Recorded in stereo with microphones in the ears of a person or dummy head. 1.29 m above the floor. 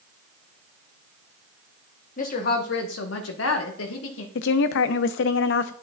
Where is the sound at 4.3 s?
70° left (ahead or behind), 0.5 m.